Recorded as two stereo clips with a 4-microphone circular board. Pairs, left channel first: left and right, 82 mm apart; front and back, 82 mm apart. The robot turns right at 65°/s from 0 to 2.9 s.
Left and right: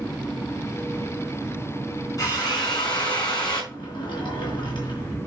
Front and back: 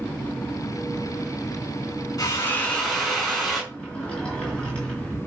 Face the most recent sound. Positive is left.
turn(degrees=75)